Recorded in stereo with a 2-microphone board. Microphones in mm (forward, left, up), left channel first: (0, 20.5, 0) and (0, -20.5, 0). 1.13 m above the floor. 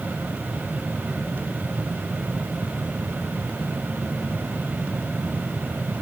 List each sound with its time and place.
Only background noise.